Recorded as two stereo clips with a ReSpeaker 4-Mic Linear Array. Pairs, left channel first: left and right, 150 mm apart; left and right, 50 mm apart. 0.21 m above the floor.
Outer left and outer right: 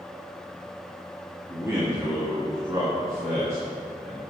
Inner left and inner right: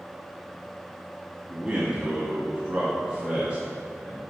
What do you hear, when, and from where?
1.5 s a man speaking: 20° right (ahead or behind), 1.5 m